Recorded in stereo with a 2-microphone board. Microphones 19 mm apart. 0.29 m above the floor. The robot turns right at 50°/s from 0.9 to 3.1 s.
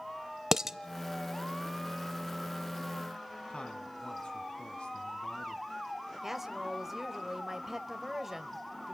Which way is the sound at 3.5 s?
65° left (ahead or behind).